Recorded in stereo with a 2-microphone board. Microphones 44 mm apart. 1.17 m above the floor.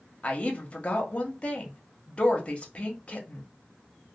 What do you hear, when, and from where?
0.2 s a woman speaking: 25° left (ahead or behind), 0.9 m